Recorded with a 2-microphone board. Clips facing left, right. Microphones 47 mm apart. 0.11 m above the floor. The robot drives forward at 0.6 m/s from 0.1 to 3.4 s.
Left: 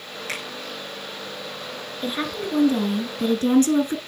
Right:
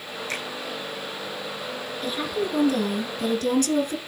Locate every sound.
0.3 s a finger snap: 70° left (ahead or behind), 3.5 m
2.0 s a woman speaking: 25° left (ahead or behind), 1.8 m; by 4.0 s 30° left (ahead or behind), 1.6 m